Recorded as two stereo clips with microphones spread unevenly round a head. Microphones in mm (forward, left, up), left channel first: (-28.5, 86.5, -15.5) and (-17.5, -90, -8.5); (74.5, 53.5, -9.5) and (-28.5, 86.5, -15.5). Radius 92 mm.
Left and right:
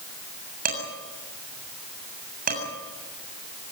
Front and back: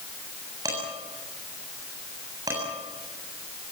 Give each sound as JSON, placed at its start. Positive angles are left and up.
{"t": 0.7, "sound": "dishes clattering", "azimuth_deg": -125, "distance_m": 7.0}